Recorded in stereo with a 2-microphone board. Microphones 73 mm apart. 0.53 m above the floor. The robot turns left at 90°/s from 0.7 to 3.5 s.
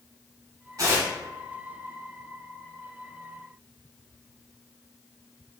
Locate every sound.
0.8 s tearing paper: 50° right (ahead or behind), 1.3 m; by 1.1 s 25° right (ahead or behind), 1.3 m